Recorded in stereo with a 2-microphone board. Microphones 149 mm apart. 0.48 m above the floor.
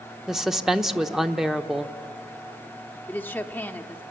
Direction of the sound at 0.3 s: 5° right (ahead or behind).